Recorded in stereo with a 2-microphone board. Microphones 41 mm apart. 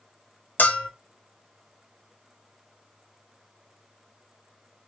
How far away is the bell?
About 0.7 m.